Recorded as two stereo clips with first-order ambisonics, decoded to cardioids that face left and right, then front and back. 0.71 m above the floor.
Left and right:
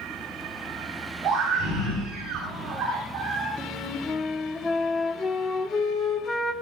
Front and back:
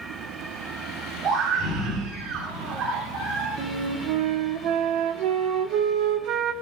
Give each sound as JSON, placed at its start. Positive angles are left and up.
{"t": 1.2, "sound": "a scream", "azimuth_deg": -140, "distance_m": 9.5}
{"t": 3.6, "sound": "a flute", "azimuth_deg": 165, "distance_m": 1.3}